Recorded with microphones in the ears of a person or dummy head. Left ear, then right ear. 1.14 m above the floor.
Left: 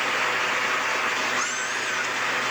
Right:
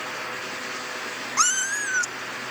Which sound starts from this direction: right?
A cat meowing, at 1.4 s.